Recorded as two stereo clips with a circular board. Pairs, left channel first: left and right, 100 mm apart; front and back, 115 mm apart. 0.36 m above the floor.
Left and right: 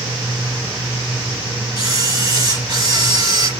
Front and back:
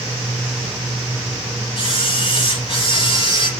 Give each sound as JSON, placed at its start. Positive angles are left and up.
{"t": 1.8, "sound": "a camera shutter", "azimuth_deg": -35, "distance_m": 3.0}